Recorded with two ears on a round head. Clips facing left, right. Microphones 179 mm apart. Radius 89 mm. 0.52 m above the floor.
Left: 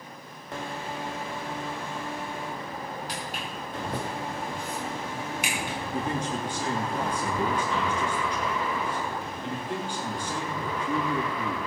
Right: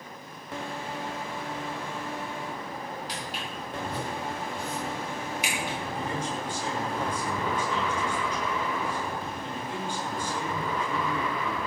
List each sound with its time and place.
3.1 s footsteps: 45° left (ahead or behind), 9 m
5.9 s a man speaking: 55° left (ahead or behind), 8.5 m